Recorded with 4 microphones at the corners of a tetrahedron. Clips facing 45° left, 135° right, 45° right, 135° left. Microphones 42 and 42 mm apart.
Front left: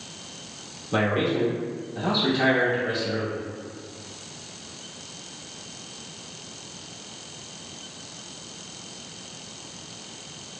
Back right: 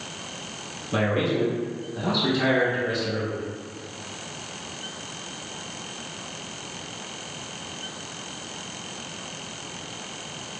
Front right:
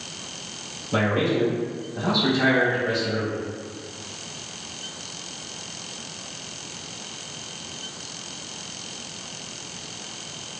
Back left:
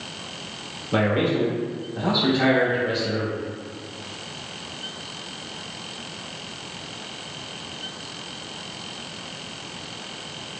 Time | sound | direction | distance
0.9 | a man speaking | 105° left | 0.9 m